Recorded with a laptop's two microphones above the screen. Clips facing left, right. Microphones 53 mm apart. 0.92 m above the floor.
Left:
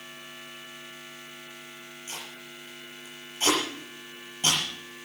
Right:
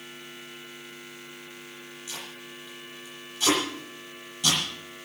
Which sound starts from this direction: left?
Tape being pulled, at 2.1 s.